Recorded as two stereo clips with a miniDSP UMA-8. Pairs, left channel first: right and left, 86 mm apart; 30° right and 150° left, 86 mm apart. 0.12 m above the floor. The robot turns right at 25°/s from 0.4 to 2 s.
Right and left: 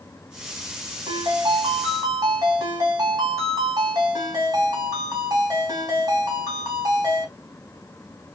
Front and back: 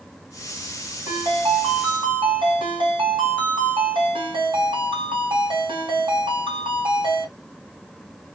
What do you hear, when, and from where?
1.1 s a ringtone: 105° left, 3 m; by 7.3 s 130° left, 3 m